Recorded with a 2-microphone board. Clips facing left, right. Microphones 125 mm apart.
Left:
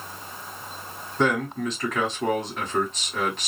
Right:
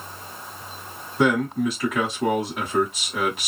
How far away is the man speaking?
About 1.7 m.